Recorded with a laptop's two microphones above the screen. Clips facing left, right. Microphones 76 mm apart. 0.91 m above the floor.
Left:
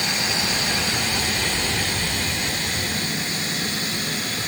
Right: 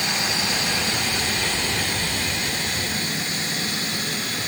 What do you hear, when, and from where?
Only background noise.